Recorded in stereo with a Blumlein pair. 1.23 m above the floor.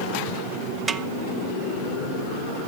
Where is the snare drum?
15° right, 0.5 m.